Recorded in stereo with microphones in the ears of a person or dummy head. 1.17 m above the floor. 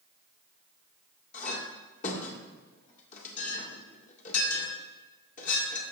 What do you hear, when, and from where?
1.3 s a clink: 45° left (ahead or behind), 1.9 m